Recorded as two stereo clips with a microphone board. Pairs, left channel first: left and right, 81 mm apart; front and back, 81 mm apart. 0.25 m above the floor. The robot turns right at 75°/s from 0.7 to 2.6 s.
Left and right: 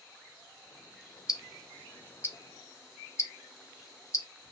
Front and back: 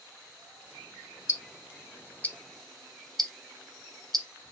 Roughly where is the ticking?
Ahead.